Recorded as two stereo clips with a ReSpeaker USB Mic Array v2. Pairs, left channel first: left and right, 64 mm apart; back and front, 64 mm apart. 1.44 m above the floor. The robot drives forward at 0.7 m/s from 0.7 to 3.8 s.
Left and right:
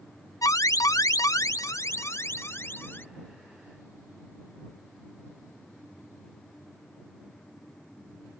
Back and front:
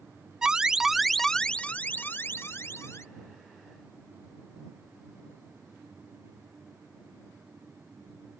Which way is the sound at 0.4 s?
80° left.